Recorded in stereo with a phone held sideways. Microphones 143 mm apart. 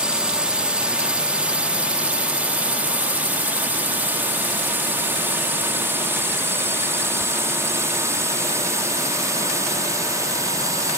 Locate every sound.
0.0 s a drone: 5° right (ahead or behind); by 11.0 s 20° right (ahead or behind)